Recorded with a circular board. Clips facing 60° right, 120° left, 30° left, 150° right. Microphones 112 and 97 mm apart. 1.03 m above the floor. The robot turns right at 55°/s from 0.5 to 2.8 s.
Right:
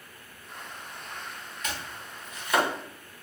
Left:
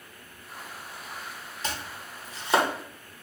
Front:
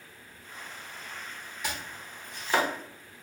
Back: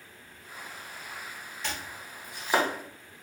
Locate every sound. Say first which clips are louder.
1.6 s chopping: left 2 dB, front 1 dB; 100° left, 0.5 m; by 2.7 s 155° left, 0.5 m